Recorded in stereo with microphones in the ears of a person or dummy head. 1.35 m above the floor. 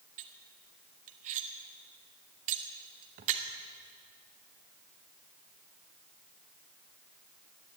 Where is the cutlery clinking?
45° right (ahead or behind), 0.7 m.